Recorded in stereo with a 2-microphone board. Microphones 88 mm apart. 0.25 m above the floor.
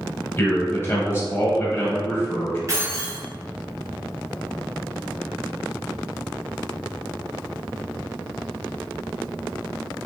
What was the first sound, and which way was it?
A man speaking, 25° left (ahead or behind).